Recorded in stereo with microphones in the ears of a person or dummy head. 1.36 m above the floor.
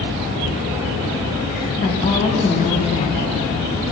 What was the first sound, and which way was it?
A woman speaking, 25° left (ahead or behind).